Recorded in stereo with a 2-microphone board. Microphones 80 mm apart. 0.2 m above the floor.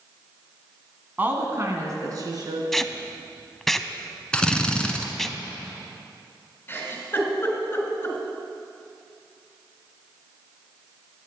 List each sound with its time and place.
1.2 s a woman speaking: 20° right (ahead or behind), 1.7 m; by 2.6 s 55° right (ahead or behind), 3 m
2.7 s tape being pulled: 5° left (ahead or behind), 0.5 m
4.3 s a drill: 10° left (ahead or behind), 1.2 m
6.7 s a giggle: 30° left (ahead or behind), 2.5 m